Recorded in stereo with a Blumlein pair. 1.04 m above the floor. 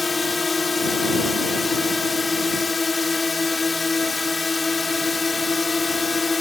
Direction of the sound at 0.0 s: 10° left.